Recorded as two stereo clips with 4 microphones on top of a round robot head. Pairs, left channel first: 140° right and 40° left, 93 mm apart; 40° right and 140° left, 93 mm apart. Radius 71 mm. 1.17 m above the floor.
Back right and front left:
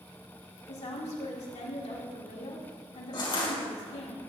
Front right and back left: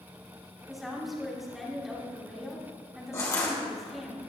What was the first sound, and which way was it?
A woman speaking, 135° right.